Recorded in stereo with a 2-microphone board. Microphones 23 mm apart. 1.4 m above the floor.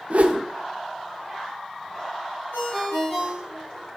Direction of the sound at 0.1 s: 65° right (ahead or behind).